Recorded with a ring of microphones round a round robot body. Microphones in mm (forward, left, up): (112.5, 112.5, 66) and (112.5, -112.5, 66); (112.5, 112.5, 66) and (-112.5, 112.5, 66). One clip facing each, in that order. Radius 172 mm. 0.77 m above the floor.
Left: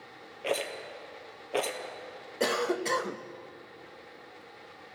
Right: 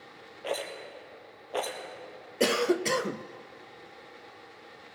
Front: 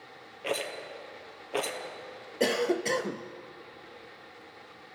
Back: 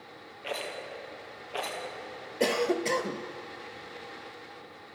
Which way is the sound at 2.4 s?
80° right.